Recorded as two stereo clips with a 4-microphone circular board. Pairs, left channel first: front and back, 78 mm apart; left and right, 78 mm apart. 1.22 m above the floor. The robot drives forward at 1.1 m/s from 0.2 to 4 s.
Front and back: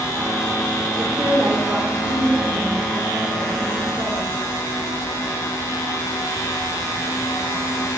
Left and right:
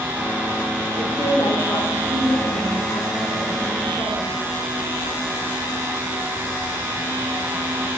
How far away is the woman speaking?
About 3 m.